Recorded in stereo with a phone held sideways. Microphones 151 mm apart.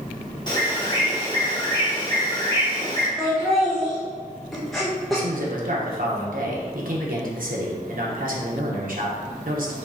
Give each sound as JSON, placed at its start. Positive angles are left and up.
{"t": 0.5, "sound": "a bird", "side_deg": 30, "distance_m": 1.3}
{"t": 3.2, "sound": "laughter", "side_deg": 0, "distance_m": 0.8}
{"t": 5.1, "sound": "a man speaking", "side_deg": -70, "distance_m": 0.9}